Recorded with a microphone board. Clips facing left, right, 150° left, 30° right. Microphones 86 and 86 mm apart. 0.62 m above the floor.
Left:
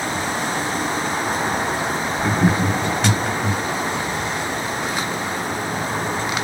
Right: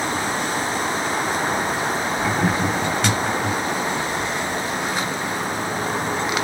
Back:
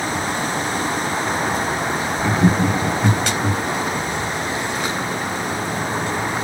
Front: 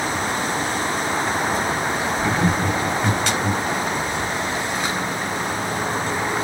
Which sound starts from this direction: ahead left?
Laughter, at 2.2 s.